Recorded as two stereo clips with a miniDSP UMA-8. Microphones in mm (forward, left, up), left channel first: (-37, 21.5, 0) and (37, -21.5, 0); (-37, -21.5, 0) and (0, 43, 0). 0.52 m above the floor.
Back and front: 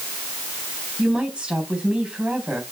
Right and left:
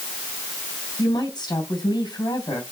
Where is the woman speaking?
110° right, 3.5 m.